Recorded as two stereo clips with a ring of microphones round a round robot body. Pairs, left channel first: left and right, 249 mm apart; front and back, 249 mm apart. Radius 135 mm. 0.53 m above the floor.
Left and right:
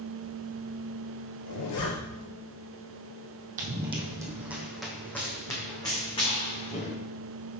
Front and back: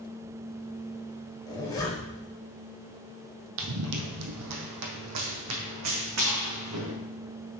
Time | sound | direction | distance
1.5 | a zipper | 75° left | 2.5 m
3.6 | running footsteps | 150° right | 0.9 m